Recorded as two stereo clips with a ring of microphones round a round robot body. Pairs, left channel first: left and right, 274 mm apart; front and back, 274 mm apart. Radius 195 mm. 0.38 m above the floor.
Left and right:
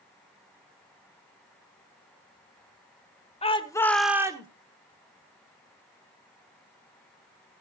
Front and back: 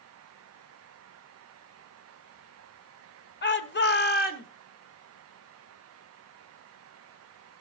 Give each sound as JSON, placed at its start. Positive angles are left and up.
{"t": 3.4, "sound": "a shout", "azimuth_deg": 30, "distance_m": 1.9}